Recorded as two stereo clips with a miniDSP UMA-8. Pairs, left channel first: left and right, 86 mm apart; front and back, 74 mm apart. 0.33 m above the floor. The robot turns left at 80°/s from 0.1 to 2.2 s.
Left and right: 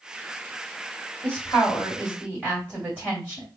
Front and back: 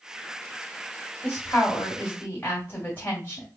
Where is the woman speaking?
50° left, 1.6 m; by 3.5 s 30° right, 1.6 m.